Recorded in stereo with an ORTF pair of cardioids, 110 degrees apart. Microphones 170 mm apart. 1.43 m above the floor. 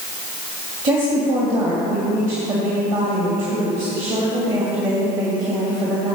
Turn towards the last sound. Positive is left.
turn(degrees=-50)